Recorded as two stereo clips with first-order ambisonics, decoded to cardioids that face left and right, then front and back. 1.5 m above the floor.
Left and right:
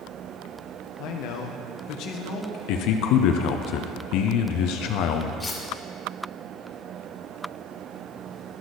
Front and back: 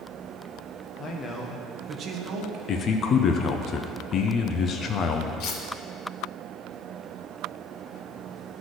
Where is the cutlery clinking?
15° left, 1.0 m.